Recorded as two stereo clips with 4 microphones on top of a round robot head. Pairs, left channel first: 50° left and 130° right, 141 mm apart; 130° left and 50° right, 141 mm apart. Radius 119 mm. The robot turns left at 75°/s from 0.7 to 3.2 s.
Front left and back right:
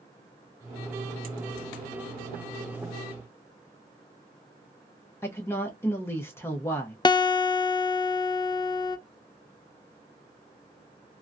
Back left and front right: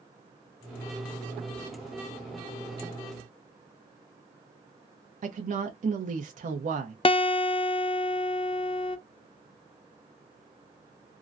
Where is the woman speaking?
20° right, 0.8 m.